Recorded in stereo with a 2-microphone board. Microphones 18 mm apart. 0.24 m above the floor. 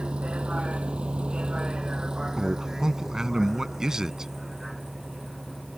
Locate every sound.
0.0 s a vehicle: 65° right (ahead or behind); by 5.8 s 5° right (ahead or behind)
2.4 s a man speaking: 30° right (ahead or behind)